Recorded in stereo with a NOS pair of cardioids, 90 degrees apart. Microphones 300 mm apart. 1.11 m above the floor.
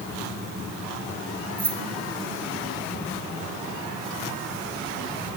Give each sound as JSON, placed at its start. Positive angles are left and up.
{"t": 1.6, "sound": "keys jangling", "azimuth_deg": -30, "distance_m": 3.5}